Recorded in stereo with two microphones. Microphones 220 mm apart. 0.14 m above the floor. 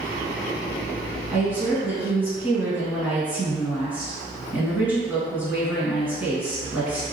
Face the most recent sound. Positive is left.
turn(degrees=-10)  # may be behind; listen again after turning